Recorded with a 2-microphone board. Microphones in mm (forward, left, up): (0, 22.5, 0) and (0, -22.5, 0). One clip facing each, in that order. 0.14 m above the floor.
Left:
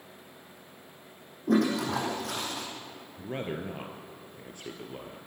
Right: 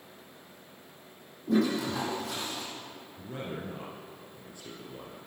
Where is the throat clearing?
I don't hear throat clearing.